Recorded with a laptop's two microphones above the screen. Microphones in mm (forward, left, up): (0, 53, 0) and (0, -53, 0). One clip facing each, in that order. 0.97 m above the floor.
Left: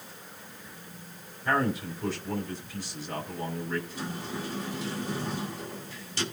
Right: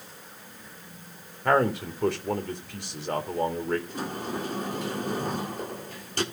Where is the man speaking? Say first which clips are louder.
Right 5 dB; 70° right (ahead or behind), 2.5 m.